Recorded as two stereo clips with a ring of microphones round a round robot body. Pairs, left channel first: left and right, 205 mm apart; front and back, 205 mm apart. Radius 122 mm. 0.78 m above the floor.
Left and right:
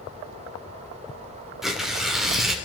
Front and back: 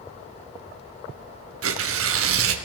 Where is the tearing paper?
Straight behind, 2.5 m.